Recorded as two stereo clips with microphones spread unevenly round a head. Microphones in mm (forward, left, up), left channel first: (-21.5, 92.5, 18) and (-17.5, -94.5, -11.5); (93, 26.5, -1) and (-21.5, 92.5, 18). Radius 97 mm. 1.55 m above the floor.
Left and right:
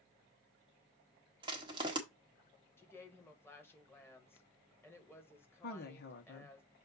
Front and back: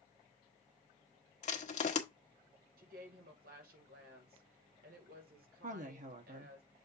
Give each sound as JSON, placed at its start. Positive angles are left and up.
{"t": 1.4, "sound": "crushing", "azimuth_deg": -20, "distance_m": 1.4}
{"t": 2.8, "sound": "a woman speaking", "azimuth_deg": 170, "distance_m": 1.9}
{"t": 5.6, "sound": "a woman speaking", "azimuth_deg": 125, "distance_m": 1.5}